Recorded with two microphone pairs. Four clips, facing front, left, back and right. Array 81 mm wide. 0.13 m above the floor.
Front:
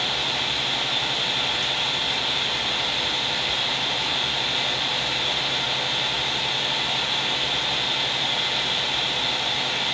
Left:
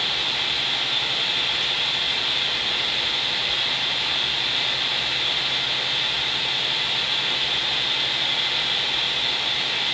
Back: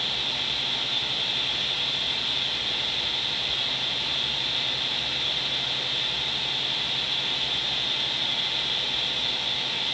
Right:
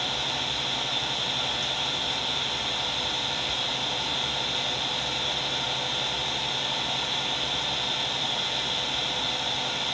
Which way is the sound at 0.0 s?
60° left.